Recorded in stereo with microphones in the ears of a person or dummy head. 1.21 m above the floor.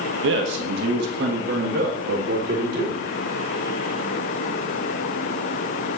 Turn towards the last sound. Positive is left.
turn(degrees=-60)  # may be behind; listen again after turning